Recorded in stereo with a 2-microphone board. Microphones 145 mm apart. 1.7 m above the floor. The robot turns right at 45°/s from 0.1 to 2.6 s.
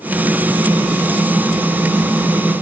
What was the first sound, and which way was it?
Only background noise.